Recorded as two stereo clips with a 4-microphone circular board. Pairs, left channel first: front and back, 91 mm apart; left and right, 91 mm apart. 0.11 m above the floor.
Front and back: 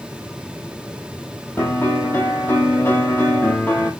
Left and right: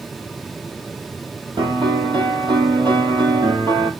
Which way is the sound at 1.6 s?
65° right.